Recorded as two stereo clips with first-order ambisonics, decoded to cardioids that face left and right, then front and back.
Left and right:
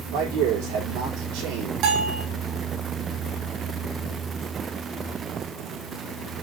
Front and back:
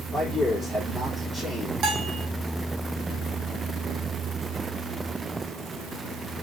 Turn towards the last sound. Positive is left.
turn(degrees=-130)